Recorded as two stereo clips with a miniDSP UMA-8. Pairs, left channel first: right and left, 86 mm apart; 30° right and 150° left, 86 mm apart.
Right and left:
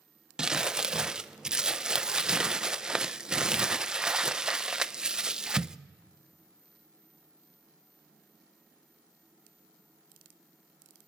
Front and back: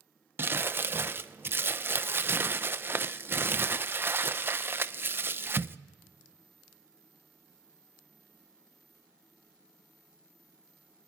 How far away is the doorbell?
No doorbell in this recording.